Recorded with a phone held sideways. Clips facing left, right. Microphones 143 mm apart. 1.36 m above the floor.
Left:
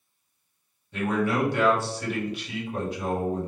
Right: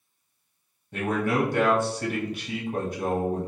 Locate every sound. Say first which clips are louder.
0.9 s a man speaking: even; 45° right (ahead or behind), 1.0 m